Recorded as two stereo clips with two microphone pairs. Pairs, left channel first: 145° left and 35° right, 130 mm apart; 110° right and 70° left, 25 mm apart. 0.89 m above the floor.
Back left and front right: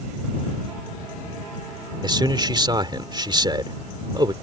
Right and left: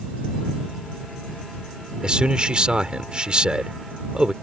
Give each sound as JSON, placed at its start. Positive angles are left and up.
{"t": 2.0, "sound": "a man speaking", "azimuth_deg": 15}